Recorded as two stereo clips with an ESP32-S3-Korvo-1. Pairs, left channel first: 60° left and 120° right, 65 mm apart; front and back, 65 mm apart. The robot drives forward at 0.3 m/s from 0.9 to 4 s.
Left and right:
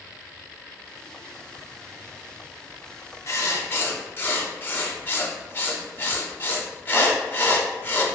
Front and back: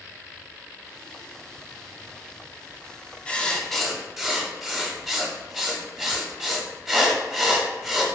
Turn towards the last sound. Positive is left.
turn(degrees=100)